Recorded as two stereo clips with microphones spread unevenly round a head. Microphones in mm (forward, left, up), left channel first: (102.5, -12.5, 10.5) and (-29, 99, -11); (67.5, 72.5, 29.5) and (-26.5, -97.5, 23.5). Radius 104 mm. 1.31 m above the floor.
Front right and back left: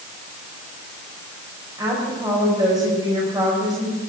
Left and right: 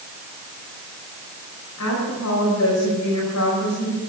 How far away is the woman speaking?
About 5 m.